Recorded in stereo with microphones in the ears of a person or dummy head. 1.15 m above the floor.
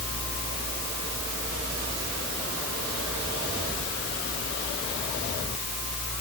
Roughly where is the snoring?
I don't hear snoring.